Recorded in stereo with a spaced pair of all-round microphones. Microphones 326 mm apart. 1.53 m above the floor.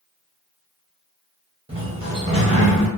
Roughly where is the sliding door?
Centre.